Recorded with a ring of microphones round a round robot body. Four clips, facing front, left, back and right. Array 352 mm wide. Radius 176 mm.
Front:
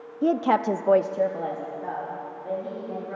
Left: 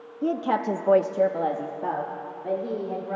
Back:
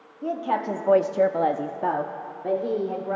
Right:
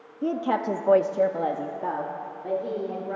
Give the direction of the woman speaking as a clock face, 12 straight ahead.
12 o'clock.